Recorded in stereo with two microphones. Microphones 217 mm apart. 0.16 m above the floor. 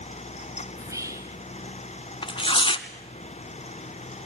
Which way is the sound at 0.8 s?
15° right (ahead or behind).